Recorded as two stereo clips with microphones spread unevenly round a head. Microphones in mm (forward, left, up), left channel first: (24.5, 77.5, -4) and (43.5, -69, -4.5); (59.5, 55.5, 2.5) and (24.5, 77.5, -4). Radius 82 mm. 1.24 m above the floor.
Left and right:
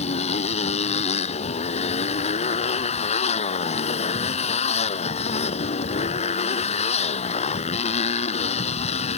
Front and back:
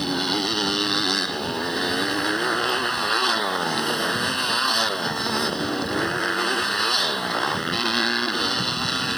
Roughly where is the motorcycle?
Ahead left.